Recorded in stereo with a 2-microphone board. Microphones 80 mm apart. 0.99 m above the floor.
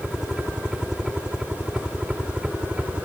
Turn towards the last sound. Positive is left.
turn(degrees=-15)  # may be behind; listen again after turning